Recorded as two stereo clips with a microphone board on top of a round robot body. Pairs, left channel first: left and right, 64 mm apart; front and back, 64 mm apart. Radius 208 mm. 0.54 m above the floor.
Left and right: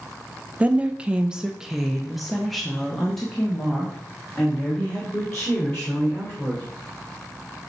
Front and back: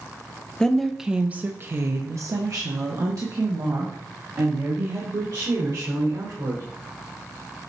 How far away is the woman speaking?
About 0.8 m.